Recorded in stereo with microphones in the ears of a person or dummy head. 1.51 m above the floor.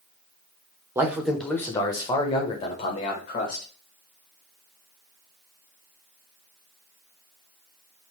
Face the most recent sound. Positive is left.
turn(degrees=45)  # may be behind; listen again after turning